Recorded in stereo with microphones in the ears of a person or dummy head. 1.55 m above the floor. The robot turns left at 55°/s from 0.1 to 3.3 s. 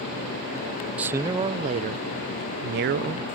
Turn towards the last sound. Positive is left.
turn(degrees=-135)